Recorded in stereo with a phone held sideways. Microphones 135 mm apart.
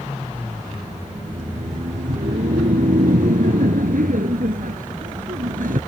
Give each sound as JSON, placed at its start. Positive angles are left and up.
{"t": 1.1, "sound": "laughter", "side_deg": -85}